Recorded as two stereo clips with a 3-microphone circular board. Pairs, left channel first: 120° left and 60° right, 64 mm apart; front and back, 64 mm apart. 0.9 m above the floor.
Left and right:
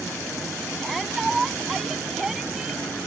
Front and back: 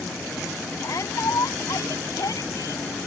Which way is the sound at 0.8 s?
30° left.